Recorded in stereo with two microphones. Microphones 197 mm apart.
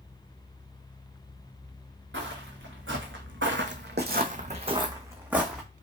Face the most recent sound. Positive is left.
turn(degrees=0)  # may be behind; listen again after turning